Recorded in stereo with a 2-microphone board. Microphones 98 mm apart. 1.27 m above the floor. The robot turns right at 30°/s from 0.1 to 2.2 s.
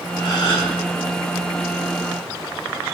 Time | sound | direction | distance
0.2 | a gasp | 60° left (ahead or behind) | 3 m